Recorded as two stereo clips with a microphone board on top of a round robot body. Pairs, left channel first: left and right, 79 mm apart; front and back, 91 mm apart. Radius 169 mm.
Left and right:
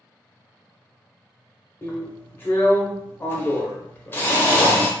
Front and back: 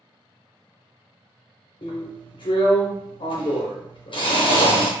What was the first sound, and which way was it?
A drill, 30° left.